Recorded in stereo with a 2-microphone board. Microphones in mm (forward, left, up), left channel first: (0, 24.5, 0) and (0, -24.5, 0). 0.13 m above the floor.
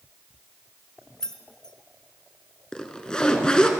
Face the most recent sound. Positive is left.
turn(degrees=20)  # may be behind; listen again after turning